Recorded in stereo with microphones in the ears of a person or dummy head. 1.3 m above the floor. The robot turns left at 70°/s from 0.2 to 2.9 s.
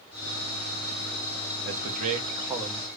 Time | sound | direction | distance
1.6 | a man speaking | 110° right | 1.0 m